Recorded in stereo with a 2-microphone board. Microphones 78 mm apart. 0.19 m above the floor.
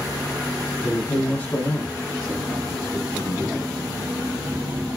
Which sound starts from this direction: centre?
A man speaking, at 0.8 s.